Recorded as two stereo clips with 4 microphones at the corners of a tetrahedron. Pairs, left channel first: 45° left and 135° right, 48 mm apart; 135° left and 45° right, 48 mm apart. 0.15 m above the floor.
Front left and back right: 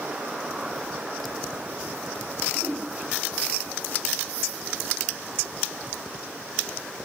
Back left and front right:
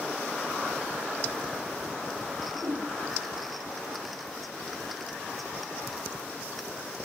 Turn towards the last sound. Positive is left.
turn(degrees=-70)